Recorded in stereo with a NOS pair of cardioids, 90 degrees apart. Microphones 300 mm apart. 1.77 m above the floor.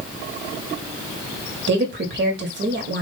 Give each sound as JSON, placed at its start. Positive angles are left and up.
{"t": 1.7, "sound": "a woman speaking", "azimuth_deg": -40, "distance_m": 1.5}